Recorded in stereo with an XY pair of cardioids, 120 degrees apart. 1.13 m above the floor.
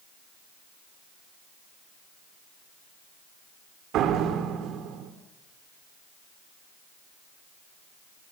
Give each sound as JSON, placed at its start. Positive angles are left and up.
{"t": 3.9, "sound": "a door slam", "azimuth_deg": -70, "distance_m": 3.0}